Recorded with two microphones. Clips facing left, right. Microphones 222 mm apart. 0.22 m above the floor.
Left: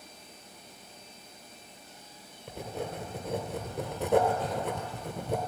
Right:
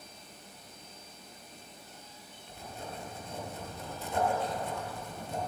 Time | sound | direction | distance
2.5 | writing | 70° left (ahead or behind) | 1.6 m